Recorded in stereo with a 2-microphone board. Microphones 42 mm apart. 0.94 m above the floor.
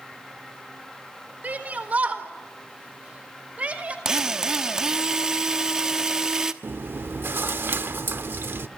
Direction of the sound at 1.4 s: 40° right (ahead or behind).